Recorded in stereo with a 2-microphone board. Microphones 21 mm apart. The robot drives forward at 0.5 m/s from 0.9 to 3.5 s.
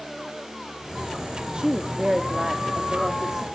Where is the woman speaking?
45° right (ahead or behind), 1.2 m; by 3.4 s 25° right (ahead or behind), 1.9 m.